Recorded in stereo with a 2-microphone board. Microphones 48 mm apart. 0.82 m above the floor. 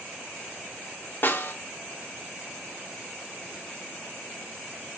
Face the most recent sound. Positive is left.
turn(degrees=45)  # may be behind; listen again after turning